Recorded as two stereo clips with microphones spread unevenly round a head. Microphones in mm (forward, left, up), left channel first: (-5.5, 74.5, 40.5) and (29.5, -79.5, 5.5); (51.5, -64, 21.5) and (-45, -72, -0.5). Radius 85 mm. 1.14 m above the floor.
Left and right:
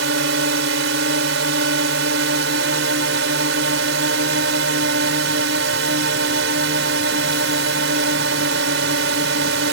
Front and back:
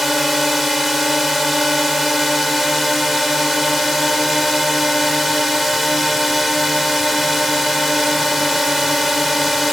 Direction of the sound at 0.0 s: 85° right.